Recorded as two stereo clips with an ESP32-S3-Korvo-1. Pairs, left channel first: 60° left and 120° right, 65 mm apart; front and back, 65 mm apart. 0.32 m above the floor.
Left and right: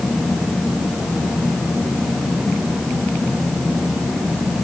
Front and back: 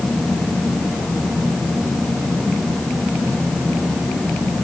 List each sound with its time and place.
Only background noise.